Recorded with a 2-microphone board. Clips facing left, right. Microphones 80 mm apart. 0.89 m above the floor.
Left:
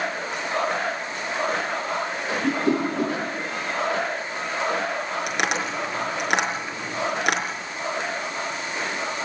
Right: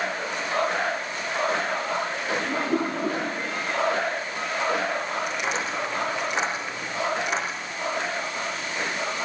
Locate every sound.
2.4 s a whoosh: 70° left (ahead or behind), 8.5 m
5.3 s tapping: 70° left (ahead or behind), 5 m